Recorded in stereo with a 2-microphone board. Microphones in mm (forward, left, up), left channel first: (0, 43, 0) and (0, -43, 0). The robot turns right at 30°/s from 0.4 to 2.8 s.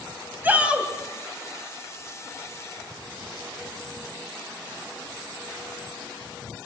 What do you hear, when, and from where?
0.4 s a shout: 20° right (ahead or behind), 3 m; by 0.9 s 5° right (ahead or behind), 3 m